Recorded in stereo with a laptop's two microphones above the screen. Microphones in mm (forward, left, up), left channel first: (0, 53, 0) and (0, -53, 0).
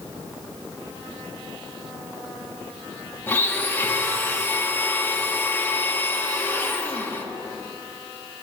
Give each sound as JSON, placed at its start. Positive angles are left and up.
{"t": 3.3, "sound": "a blender", "side_deg": 20, "distance_m": 0.7}